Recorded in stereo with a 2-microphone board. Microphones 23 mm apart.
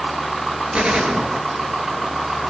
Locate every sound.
0.7 s a gunshot: 85° right, 4 m